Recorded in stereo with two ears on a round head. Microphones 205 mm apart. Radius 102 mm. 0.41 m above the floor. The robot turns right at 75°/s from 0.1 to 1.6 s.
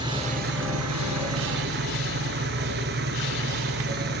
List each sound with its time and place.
0.0 s an engine running: 160° right, 2.5 m; by 4.2 s 50° right, 2.5 m